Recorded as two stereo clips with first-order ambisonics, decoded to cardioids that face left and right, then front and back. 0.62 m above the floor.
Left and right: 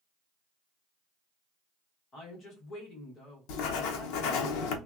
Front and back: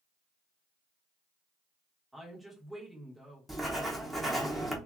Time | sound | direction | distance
2.1 | a woman speaking | 95° left | 1.0 m
3.5 | writing | 90° left | 0.6 m